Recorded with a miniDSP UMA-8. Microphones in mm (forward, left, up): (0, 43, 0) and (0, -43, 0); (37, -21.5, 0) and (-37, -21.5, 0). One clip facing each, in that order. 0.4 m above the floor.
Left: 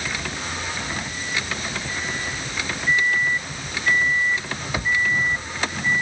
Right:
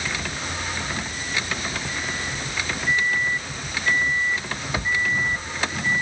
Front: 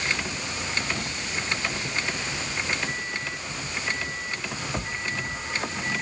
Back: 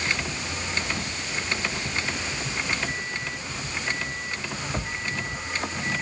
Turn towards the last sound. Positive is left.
No sound to turn to.